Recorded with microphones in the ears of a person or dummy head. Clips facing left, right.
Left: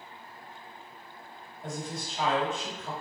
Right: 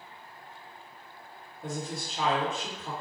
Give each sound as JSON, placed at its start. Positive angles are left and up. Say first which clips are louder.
{"t": 1.6, "sound": "a woman speaking", "louder": "right 1 dB", "side_deg": -80, "distance_m": 1.4}